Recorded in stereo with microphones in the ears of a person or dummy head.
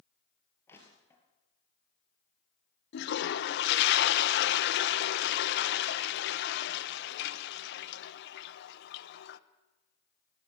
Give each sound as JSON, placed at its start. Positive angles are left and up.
{"t": 0.7, "sound": "crushing", "side_deg": 10, "distance_m": 4.5}
{"t": 2.9, "sound": "a toilet flushing", "side_deg": 75, "distance_m": 1.0}